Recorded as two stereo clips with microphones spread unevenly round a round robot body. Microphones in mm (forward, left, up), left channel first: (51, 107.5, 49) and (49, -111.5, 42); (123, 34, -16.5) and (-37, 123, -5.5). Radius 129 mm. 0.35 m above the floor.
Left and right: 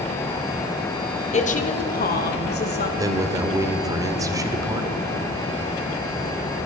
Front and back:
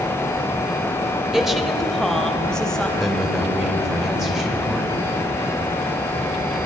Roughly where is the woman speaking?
Ahead left.